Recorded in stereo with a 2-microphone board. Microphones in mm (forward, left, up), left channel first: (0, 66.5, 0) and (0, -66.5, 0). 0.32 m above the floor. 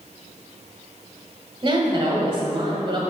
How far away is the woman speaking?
About 1.3 m.